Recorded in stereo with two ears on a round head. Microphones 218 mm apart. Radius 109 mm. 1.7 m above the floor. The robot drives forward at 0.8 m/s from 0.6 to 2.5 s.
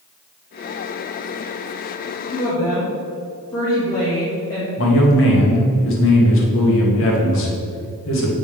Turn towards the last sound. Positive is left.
turn(degrees=55)  # may be behind; listen again after turning